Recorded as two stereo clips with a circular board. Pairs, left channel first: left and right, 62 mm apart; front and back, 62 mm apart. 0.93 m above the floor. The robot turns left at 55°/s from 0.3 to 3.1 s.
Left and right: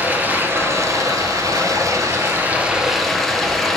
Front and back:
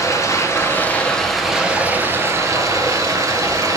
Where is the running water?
30° right, 1.6 m; by 3.8 s 175° left, 1.6 m.